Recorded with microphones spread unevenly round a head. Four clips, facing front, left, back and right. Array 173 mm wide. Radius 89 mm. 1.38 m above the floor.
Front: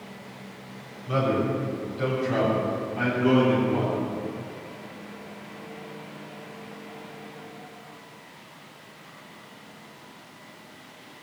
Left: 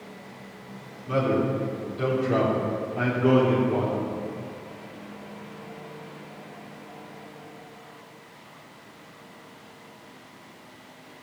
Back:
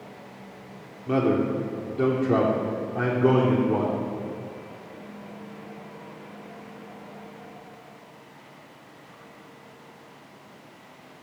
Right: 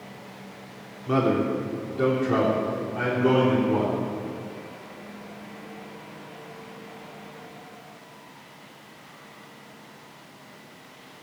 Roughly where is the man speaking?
Behind right.